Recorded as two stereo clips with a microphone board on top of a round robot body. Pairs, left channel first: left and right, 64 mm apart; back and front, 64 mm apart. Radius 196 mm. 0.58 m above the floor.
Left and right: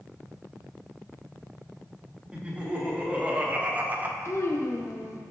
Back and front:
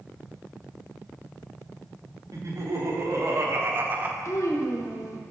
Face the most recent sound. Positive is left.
turn(degrees=135)